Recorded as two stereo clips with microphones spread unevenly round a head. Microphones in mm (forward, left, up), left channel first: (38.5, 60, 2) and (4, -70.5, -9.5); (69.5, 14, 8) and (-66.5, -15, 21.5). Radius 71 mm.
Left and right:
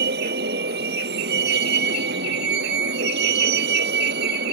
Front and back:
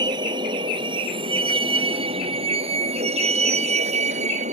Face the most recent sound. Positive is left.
turn(degrees=-125)